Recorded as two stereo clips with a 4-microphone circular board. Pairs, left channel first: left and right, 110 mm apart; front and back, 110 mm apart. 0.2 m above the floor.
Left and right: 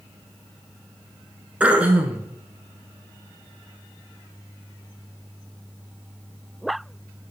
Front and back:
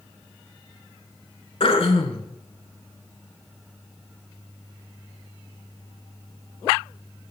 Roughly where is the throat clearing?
Ahead.